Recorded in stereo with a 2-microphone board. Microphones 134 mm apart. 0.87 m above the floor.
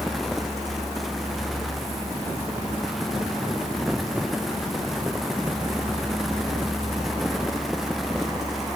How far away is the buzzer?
No buzzer in this recording.